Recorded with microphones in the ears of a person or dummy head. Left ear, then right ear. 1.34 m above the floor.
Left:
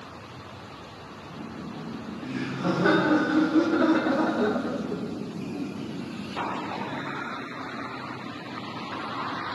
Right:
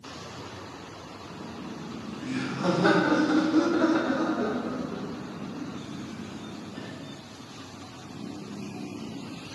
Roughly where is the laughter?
Right.